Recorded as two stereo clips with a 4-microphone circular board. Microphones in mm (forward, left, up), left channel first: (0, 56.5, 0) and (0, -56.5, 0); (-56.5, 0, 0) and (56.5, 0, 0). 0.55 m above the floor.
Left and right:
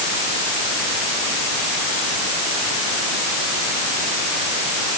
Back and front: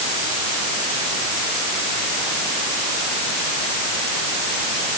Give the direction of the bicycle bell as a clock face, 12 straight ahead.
I don't hear a bicycle bell.